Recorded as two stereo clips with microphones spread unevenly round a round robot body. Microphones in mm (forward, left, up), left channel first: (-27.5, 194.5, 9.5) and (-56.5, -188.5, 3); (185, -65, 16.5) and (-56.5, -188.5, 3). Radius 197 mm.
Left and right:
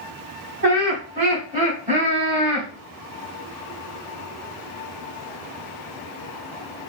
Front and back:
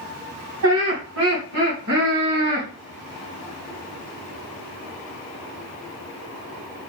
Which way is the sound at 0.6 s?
155° right.